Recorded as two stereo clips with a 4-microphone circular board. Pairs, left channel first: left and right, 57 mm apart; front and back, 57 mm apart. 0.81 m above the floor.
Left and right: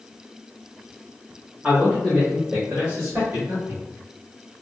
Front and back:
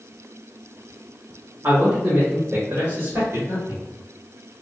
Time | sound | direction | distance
1.6 | a man speaking | 160° right | 1.4 m